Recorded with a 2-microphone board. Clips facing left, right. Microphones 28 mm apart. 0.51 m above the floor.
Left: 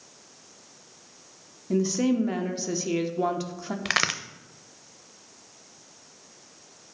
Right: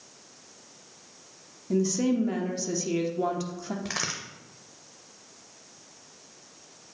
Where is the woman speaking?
20° left (ahead or behind), 0.7 m.